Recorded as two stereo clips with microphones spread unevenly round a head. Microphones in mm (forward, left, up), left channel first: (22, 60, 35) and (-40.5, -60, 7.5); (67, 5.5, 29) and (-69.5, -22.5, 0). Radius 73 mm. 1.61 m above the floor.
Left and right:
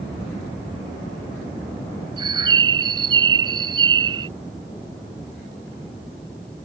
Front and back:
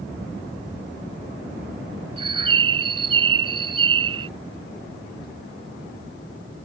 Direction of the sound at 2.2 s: 155° right.